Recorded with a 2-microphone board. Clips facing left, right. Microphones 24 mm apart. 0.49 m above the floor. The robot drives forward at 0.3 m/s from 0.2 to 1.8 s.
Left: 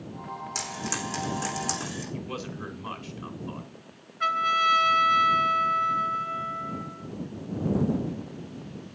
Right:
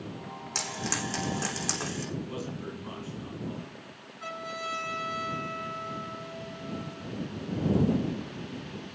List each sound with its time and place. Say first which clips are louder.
0.6 s frying: right 1 dB; 15° right (ahead or behind), 6.5 m
2.1 s a man speaking: left 1 dB; 40° left (ahead or behind), 3.5 m
4.2 s a trumpet: left 13 dB; 45° left (ahead or behind), 3 m